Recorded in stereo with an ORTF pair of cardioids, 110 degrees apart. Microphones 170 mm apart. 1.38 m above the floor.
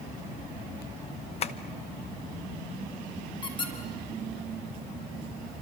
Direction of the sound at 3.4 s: 25° left.